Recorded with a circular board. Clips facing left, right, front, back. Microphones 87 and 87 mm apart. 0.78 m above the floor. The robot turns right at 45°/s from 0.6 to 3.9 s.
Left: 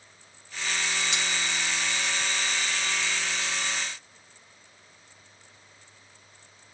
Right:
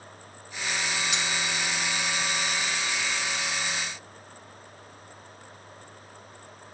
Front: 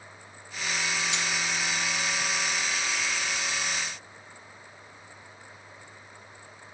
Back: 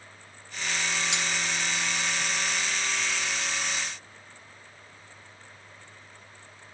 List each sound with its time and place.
1.1 s cutlery clinking: straight behind, 2 m; by 1.3 s 170° right, 2 m